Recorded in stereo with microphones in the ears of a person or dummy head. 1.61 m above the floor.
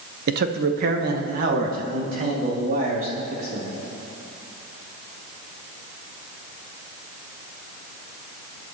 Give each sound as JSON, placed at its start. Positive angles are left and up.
{"t": 0.3, "sound": "a man speaking", "side_deg": -55, "distance_m": 0.8}